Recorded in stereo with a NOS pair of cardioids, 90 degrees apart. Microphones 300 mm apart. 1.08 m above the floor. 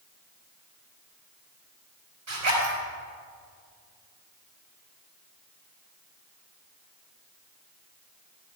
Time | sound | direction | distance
2.3 | a zipper | 70° right | 4.5 m